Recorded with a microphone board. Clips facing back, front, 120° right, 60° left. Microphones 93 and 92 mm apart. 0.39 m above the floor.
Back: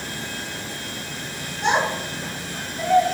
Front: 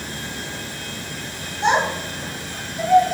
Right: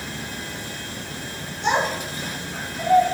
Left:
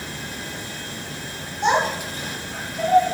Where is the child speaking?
60° left, 2.5 m; by 3.1 s 90° left, 0.9 m.